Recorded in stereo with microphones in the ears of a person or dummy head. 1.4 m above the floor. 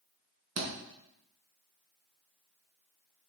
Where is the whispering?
I don't hear whispering.